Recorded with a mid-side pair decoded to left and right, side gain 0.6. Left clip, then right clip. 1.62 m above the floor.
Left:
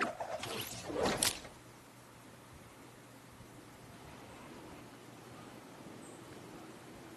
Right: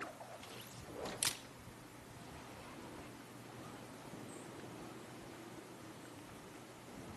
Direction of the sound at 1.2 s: 25° left.